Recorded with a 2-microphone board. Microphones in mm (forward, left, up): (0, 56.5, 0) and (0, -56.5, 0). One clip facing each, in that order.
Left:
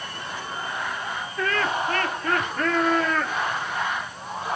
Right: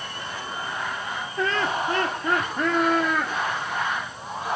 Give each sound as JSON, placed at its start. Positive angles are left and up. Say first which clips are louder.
{"t": 1.4, "sound": "laughter", "louder": "even", "side_deg": -25, "distance_m": 3.5}